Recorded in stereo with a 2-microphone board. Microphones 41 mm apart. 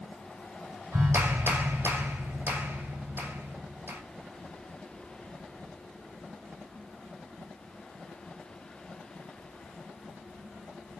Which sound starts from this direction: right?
A clap, at 0.9 s.